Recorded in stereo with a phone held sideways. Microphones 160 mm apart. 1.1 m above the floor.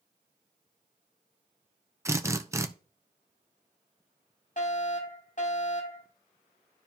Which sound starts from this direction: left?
A fire alarm, at 4.6 s.